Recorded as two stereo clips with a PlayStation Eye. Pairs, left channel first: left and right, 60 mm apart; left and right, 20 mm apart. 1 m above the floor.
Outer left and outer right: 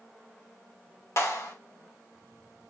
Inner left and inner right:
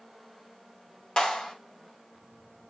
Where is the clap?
50° left (ahead or behind), 3 m.